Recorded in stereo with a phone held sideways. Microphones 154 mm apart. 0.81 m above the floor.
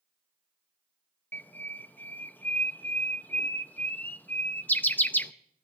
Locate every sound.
1.3 s a bird: 10° left (ahead or behind), 0.6 m